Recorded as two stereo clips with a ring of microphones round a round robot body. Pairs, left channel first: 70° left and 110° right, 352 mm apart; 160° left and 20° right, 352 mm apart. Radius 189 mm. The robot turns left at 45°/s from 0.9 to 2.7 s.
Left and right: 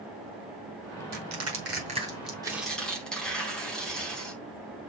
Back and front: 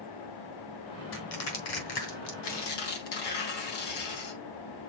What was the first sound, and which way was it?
Crushing, 150° right.